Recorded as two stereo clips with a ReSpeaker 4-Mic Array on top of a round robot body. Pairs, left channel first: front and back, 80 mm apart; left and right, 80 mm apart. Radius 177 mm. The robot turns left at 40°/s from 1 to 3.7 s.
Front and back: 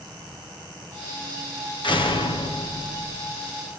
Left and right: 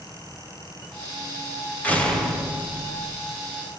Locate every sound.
1.8 s a door slam: 20° left, 4.5 m; by 3.4 s 40° right, 4.5 m